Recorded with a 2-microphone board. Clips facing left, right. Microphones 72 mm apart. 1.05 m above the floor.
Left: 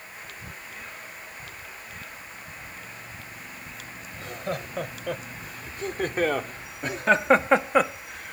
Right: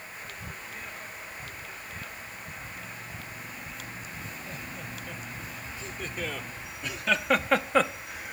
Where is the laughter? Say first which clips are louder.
Left 8 dB; 75° left (ahead or behind); by 8.3 s 10° right (ahead or behind).